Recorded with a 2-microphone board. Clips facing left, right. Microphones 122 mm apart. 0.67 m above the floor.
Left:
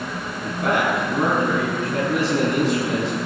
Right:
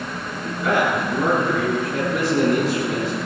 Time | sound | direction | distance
0.4 | a man speaking | 75° left (ahead or behind) | 7 m